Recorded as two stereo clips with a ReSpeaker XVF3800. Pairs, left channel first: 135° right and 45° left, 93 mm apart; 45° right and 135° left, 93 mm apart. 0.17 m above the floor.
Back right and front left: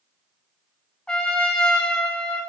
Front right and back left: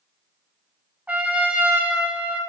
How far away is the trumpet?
About 0.5 m.